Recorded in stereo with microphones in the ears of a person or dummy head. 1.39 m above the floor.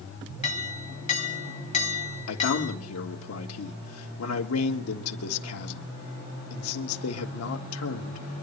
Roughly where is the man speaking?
Left.